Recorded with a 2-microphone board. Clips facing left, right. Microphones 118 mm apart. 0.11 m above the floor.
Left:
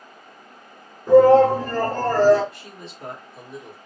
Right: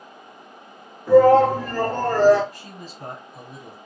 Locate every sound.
1.1 s a shout: 20° left (ahead or behind), 1.4 m; by 2.4 s 40° left (ahead or behind), 1.8 m
2.5 s a man speaking: 35° right (ahead or behind), 1.7 m